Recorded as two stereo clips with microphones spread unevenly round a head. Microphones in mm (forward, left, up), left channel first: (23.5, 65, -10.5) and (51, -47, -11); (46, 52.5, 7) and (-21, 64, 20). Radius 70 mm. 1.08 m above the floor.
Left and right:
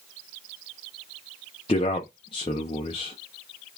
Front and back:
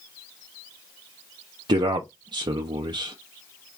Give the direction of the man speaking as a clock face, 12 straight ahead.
7 o'clock.